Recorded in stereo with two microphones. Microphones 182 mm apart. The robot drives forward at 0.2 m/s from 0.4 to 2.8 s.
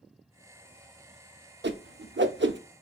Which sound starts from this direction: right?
A whoosh, at 1.6 s.